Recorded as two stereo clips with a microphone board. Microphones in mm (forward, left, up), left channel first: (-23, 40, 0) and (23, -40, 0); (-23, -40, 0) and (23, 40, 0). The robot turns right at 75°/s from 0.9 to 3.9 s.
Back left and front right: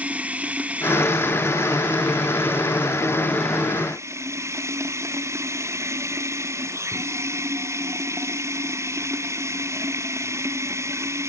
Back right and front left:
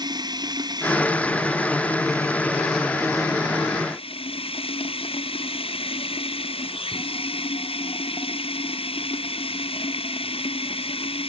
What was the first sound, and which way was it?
Running water, 15° left.